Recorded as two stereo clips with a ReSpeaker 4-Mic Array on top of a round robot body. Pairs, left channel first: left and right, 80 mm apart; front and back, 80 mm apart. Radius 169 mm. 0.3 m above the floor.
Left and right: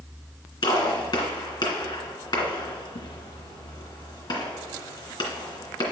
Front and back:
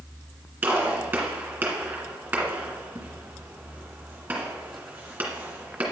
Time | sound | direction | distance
0.6 | a gunshot | 110° left | 2 m